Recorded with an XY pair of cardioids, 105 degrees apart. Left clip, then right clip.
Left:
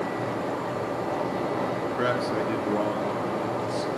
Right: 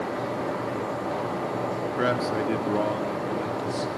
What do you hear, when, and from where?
2.0 s a man speaking: 15° right, 2.5 m